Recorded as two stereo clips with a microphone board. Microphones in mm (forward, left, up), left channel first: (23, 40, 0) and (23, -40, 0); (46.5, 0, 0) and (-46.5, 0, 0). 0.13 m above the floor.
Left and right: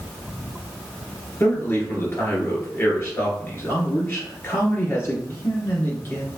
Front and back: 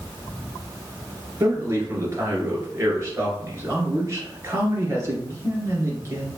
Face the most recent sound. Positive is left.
turn(degrees=135)